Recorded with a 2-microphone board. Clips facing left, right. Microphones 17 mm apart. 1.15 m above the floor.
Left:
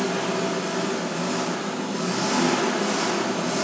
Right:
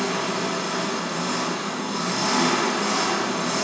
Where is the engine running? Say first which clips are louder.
Even; 35° right (ahead or behind), 2.5 m.